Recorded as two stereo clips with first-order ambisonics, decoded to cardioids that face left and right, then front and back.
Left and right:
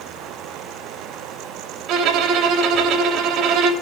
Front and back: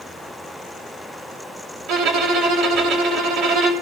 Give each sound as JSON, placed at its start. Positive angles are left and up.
{"t": 1.9, "sound": "a violin", "azimuth_deg": -140, "distance_m": 3.5}